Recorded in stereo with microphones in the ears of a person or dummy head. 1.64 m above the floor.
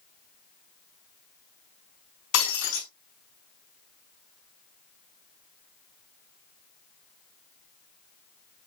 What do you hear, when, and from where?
2.3 s breaking glass: 70° left (ahead or behind), 5 m